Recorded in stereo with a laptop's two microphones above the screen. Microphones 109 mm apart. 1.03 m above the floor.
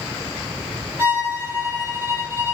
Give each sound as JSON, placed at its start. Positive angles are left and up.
{"t": 1.0, "sound": "a violin", "side_deg": -20, "distance_m": 1.6}